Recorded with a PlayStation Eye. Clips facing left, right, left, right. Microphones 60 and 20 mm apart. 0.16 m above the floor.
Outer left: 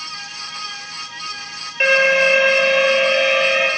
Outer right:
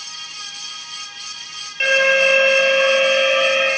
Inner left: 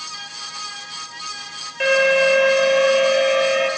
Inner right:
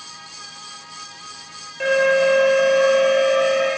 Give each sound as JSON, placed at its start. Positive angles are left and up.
{"t": 1.8, "sound": "an alarm", "side_deg": 30, "distance_m": 4.5}